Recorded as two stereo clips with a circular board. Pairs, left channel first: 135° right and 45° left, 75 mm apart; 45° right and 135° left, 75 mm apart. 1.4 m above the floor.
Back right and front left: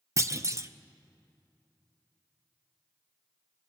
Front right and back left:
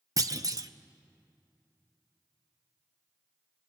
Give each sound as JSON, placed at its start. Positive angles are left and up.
{"t": 0.2, "sound": "a clunk", "azimuth_deg": 95, "distance_m": 0.7}